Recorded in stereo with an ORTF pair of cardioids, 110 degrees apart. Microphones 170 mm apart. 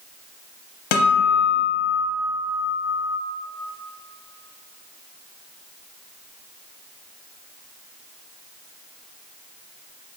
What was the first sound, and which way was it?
A guitar, 60° left.